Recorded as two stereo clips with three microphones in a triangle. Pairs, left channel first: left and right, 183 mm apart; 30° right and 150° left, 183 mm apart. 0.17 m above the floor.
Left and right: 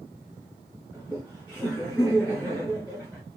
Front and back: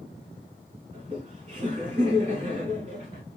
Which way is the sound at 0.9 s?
170° right.